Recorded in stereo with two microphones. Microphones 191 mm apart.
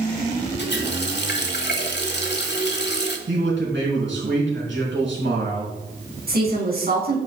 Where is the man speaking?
75° right (ahead or behind), 4.5 m.